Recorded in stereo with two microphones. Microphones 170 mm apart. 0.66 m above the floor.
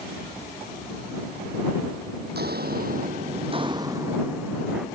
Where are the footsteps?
70° right (ahead or behind); by 4.9 s 5° right (ahead or behind).